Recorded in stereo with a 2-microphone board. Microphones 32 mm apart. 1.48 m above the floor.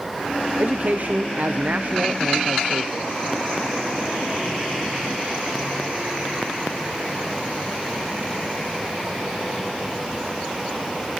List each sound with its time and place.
0.6 s a man speaking: 45° right (ahead or behind), 0.7 m